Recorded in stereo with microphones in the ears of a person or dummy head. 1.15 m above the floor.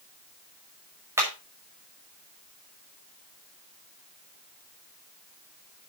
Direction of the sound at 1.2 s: 10° right (ahead or behind).